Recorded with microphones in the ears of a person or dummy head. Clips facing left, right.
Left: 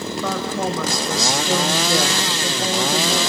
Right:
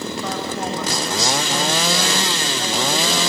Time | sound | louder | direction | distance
0.2 | a woman speaking | left 5 dB | 80° left | 5.5 m